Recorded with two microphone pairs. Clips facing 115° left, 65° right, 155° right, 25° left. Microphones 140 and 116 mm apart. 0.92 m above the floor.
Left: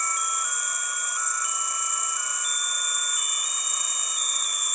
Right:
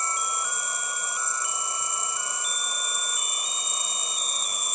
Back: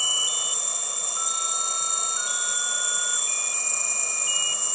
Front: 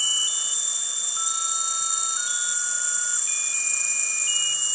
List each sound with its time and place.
0.0 s an insect: 125° right